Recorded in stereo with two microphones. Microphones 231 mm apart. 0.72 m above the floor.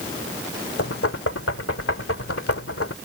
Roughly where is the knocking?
Left.